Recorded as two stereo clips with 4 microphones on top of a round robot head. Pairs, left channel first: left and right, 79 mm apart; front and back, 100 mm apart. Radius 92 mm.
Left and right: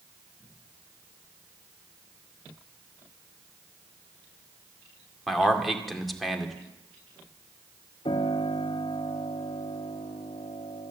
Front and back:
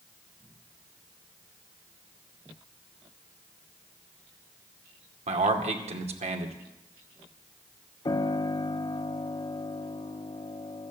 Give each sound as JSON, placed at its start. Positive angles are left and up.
{"t": 5.3, "sound": "a man speaking", "azimuth_deg": 180, "distance_m": 2.0}
{"t": 8.1, "sound": "a piano", "azimuth_deg": 50, "distance_m": 0.8}